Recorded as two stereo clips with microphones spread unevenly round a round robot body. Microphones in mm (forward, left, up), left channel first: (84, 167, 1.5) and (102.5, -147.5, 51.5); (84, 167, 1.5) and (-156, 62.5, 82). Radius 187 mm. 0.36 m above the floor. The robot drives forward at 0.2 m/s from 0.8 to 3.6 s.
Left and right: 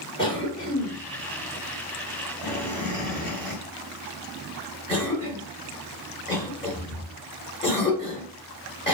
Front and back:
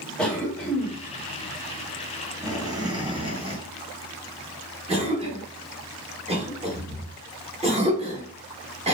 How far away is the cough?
About 1.2 m.